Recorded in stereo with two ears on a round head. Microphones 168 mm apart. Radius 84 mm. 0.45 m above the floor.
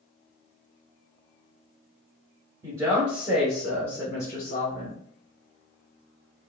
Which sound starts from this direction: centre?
A woman speaking, at 2.6 s.